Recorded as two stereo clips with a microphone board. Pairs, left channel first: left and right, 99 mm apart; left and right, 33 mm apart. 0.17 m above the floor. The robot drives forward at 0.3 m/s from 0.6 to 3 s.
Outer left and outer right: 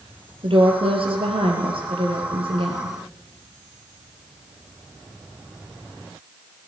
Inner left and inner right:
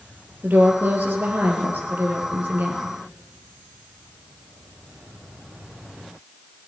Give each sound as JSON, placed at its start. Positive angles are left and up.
{"t": 0.4, "sound": "a woman speaking", "side_deg": -65, "distance_m": 3.5}